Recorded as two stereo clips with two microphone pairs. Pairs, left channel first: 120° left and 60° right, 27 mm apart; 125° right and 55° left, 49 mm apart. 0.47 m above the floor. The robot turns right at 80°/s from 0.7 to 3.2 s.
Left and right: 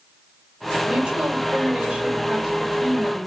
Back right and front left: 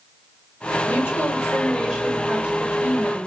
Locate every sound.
0.8 s a woman speaking: 115° right, 1.5 m; by 3.3 s 70° left, 1.5 m